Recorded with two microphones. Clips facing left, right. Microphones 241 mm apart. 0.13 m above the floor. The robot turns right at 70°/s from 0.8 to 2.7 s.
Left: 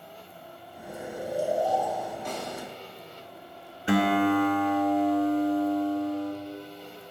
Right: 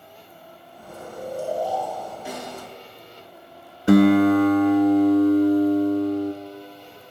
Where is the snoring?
60° left, 3 m; by 2.1 s 150° left, 3 m.